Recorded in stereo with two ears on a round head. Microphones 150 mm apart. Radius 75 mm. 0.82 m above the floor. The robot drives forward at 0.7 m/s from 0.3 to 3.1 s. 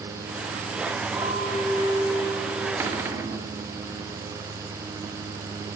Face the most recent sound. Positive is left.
turn(degrees=-15)  # may be behind; listen again after turning